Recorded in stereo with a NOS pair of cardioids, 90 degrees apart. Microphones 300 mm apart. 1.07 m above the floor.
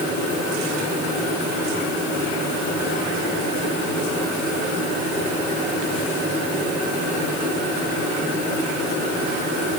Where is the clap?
No clap in this recording.